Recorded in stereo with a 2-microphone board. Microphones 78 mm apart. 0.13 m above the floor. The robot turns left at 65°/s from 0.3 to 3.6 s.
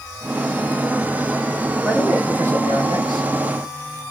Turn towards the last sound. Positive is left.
turn(degrees=-105)